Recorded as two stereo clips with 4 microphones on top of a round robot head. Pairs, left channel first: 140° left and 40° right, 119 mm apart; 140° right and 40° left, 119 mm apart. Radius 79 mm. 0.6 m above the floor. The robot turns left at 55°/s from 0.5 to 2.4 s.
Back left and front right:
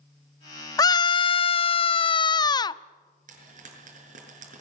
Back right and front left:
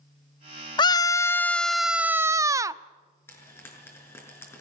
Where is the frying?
65° right, 6.5 m.